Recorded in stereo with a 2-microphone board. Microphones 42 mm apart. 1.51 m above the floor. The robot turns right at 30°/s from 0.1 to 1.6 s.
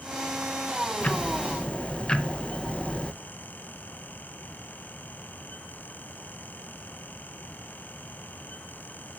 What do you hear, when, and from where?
1.0 s ticking: 40° left (ahead or behind), 0.7 m; by 3.1 s 20° left (ahead or behind), 0.7 m